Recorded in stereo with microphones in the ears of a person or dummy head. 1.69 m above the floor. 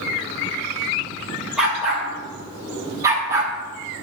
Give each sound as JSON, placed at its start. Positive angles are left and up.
{"t": 1.6, "sound": "a dog barking", "side_deg": -5, "distance_m": 2.5}